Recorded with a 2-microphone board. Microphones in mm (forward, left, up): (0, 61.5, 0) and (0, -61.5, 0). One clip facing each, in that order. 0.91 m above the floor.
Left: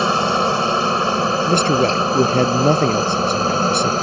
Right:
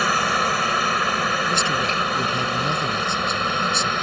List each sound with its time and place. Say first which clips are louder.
0.0 s a helicopter: left 5 dB; 25° left (ahead or behind); by 4.0 s 30° left (ahead or behind)
1.4 s a man speaking: left 8 dB; 50° left (ahead or behind)